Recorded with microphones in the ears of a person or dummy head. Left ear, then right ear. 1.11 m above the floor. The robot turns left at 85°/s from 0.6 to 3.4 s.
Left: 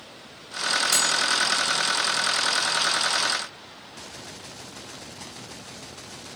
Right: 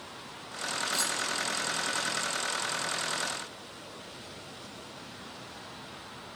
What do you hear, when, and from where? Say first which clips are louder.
0.9 s cutlery clinking: left 6 dB; 85° left, 6 m; by 1.1 s 75° left (ahead or behind), 6 m